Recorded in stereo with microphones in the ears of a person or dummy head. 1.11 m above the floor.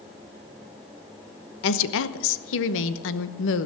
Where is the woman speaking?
65° left (ahead or behind), 1.0 m.